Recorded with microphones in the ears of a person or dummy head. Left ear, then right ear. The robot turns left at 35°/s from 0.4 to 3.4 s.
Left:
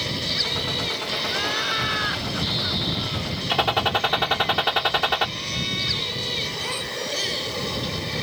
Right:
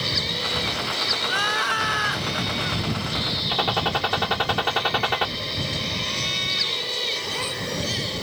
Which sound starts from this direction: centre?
A gunshot, at 3.5 s.